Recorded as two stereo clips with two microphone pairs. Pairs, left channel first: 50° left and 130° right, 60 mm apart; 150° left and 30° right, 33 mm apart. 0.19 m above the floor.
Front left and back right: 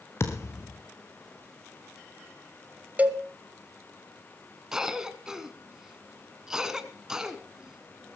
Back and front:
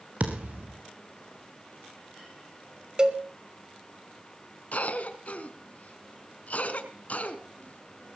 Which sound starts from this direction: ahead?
A thud, at 0.2 s.